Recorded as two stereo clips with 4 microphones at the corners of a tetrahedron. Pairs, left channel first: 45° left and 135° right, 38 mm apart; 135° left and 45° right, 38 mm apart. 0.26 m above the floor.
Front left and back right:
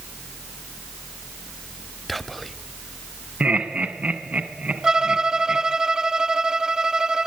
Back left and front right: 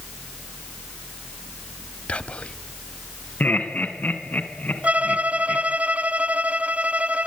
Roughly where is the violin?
Right.